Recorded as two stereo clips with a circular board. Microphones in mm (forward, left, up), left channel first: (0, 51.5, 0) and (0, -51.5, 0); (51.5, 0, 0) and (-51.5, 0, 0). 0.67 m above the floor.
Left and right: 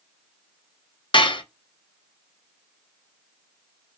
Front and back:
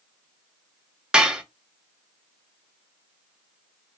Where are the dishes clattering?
100° left, 0.6 m.